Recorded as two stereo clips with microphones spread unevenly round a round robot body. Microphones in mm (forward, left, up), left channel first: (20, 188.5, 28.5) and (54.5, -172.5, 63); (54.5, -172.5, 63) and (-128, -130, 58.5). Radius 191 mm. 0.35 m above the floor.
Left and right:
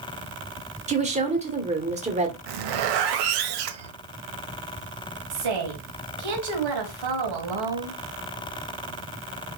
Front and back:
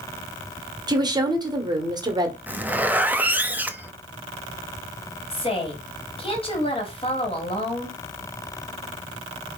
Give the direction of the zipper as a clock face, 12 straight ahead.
4 o'clock.